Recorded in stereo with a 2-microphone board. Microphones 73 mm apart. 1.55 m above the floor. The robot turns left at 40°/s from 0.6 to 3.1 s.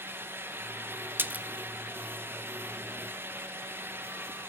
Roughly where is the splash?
Right.